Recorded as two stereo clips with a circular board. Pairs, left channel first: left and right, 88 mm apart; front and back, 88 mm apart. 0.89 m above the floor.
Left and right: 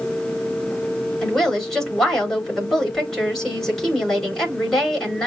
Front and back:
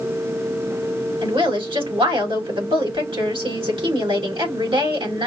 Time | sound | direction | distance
1.2 | a woman speaking | 175° left | 4.5 m